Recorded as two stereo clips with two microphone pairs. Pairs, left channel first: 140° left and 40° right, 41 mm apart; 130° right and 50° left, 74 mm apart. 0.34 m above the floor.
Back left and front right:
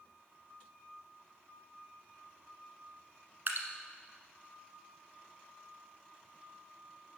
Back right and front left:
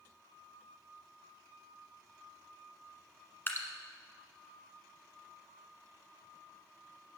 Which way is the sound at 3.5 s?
70° right.